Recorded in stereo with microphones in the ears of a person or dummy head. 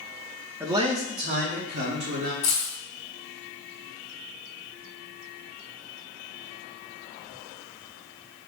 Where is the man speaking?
10° right (ahead or behind), 0.5 m; by 2.3 s 60° right (ahead or behind), 1.9 m.